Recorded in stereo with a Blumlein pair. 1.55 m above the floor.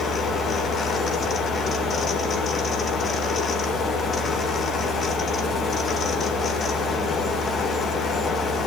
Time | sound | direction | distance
0.0 | a fan | 25° left | 1.9 m